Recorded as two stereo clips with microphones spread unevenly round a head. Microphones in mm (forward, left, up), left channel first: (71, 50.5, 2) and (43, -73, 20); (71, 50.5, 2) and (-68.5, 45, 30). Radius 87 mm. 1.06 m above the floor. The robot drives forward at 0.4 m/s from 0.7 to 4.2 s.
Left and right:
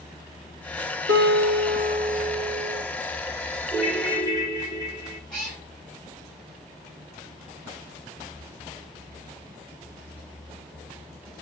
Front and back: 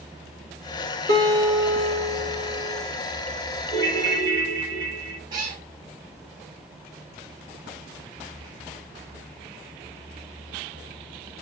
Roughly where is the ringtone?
Behind.